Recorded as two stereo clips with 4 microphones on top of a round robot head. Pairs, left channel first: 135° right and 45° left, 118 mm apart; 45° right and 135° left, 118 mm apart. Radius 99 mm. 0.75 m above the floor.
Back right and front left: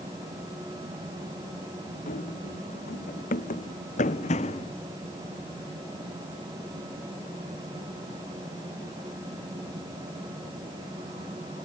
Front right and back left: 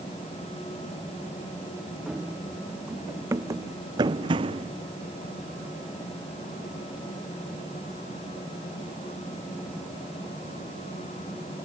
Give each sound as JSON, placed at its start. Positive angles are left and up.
{"t": 2.1, "sound": "running footsteps", "azimuth_deg": -140}